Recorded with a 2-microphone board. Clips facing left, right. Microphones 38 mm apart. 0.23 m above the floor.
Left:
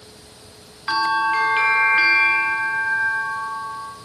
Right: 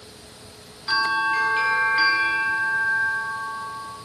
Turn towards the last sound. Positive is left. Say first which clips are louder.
# left 2 dB
turn(degrees=30)  # may be behind; listen again after turning